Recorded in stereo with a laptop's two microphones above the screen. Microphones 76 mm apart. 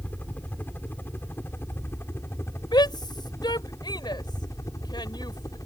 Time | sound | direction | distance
0.0 | a helicopter | 25° left (ahead or behind) | ?
2.7 | a shout | 75° left (ahead or behind) | ?